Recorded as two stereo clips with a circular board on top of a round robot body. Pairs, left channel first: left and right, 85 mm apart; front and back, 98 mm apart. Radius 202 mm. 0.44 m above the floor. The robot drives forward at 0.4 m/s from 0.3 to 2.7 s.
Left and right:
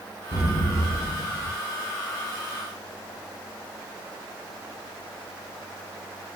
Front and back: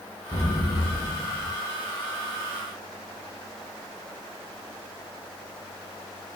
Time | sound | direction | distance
0.3 | an explosion | 70° left | 1.5 m